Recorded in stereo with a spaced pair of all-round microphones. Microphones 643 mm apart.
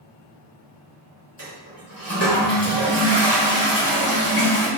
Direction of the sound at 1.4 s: 25° right (ahead or behind).